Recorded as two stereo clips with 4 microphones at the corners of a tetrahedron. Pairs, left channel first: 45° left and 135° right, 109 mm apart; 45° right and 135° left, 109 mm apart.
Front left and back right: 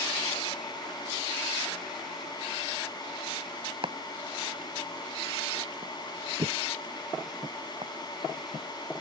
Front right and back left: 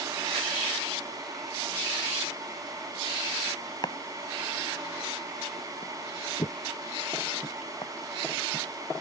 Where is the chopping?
95° right.